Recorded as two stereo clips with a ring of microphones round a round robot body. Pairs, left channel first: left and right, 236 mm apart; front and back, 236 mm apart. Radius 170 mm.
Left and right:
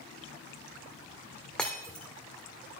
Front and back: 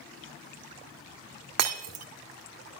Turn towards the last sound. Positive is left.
turn(degrees=180)